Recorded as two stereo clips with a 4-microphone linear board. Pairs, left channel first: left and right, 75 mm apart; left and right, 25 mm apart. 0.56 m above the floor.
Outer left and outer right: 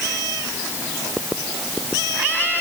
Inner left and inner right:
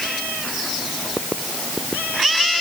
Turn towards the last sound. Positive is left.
No sound to turn to.